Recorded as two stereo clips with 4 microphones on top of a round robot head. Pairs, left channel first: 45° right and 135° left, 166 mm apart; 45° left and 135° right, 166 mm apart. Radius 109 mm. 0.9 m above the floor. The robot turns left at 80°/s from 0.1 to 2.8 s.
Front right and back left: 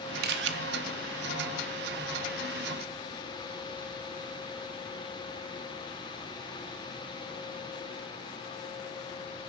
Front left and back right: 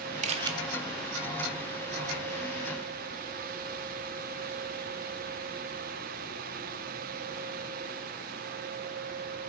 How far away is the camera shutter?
About 0.7 m.